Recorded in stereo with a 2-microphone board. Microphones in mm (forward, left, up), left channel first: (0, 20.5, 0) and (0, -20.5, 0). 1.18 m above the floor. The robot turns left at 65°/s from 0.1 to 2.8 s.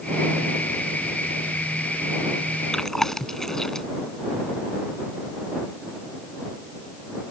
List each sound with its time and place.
2.7 s chewing: 10° left (ahead or behind)